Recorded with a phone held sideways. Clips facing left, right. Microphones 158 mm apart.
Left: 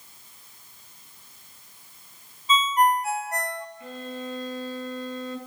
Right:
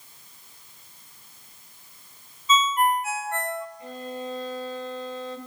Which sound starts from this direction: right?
A violin, at 3.8 s.